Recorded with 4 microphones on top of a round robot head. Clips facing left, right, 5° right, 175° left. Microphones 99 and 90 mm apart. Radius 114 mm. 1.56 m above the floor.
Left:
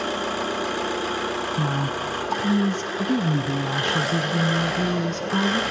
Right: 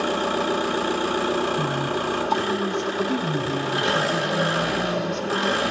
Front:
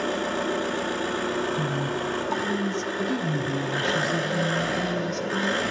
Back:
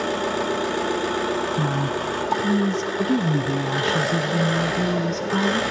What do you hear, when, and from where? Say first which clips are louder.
0.0 s an engine running: right 3 dB, back 3 dB; 100° right, 1.3 m
1.6 s a woman speaking: right 2 dB, back 3 dB; 135° left, 0.7 m